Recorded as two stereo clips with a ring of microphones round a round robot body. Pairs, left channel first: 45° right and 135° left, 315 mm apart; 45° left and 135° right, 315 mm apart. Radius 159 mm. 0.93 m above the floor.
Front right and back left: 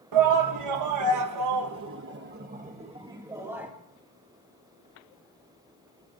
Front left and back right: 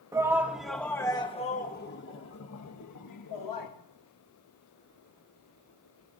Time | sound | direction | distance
0.1 | a shout | 145° left | 1.5 m